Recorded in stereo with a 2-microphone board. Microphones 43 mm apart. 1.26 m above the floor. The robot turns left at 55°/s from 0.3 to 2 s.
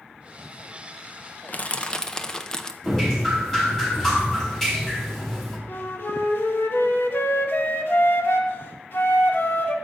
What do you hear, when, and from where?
1.5 s crushing: 40° left (ahead or behind), 0.6 m; by 2.7 s 15° left (ahead or behind), 0.6 m
2.8 s dripping: 5° left (ahead or behind), 3 m
5.7 s a flute: 55° left (ahead or behind), 1.2 m